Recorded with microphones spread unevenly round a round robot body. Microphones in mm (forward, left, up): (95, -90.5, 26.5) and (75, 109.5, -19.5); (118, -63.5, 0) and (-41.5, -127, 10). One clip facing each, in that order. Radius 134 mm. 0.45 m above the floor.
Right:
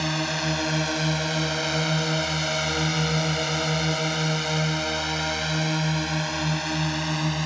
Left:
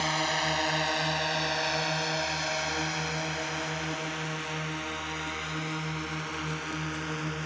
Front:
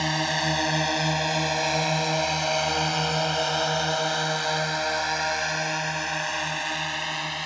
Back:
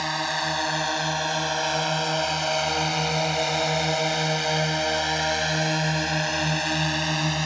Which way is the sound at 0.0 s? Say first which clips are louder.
Right 4 dB, front 2 dB; 40° right.